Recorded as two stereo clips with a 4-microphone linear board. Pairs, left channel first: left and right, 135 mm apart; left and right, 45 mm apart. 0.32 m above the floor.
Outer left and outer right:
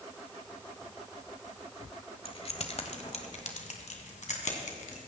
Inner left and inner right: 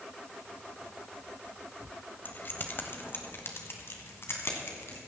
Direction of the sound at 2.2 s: 45° left (ahead or behind).